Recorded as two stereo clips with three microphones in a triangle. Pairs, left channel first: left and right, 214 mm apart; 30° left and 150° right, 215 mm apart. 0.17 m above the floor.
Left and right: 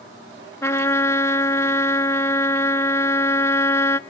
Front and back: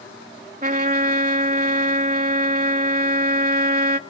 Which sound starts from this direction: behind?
A trumpet, at 0.6 s.